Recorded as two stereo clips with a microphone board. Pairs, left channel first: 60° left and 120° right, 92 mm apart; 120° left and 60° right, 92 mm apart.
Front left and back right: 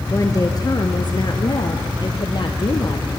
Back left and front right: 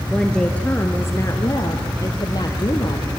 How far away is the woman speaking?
About 1.3 m.